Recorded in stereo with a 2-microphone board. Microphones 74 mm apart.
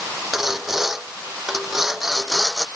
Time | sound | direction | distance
0.3 | sawing | 5° right (ahead or behind) | ?